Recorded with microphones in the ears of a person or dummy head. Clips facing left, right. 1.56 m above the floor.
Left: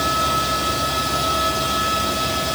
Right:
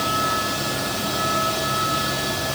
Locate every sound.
Only background noise.